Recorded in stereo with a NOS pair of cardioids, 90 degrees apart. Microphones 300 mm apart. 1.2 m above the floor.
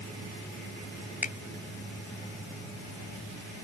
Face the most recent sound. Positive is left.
turn(degrees=25)